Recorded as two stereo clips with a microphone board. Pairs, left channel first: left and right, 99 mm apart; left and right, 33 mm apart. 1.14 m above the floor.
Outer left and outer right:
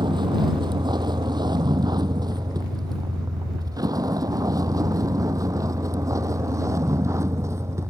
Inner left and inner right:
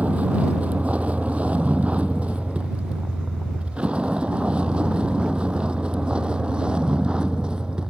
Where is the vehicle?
50° right (ahead or behind); by 7.9 s 30° right (ahead or behind).